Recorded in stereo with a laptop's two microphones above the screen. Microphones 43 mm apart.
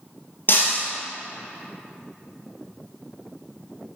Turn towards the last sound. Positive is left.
turn(degrees=45)  # may be behind; listen again after turning